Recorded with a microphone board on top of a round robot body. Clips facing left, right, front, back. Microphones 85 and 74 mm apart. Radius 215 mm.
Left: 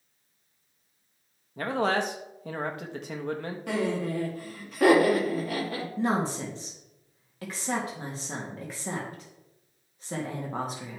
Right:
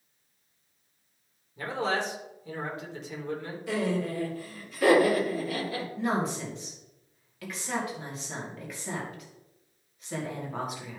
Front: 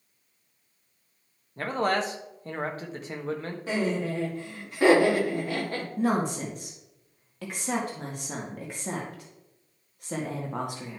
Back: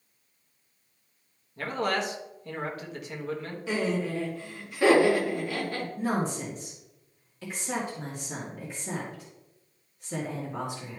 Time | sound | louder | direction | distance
1.6 | a man speaking | left 3 dB, front 2 dB | 55° left | 1.5 m
3.7 | laughter | even, front 1 dB | 55° left | 4 m
6.0 | a woman speaking | left 2 dB, front 4 dB | 30° left | 2 m